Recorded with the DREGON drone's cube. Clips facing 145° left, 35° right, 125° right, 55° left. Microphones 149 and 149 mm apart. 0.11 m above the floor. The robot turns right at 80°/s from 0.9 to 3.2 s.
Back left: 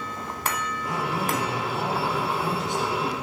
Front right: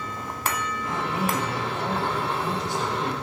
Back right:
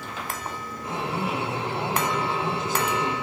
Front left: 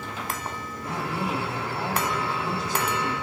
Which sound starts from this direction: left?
A man speaking, at 0.8 s.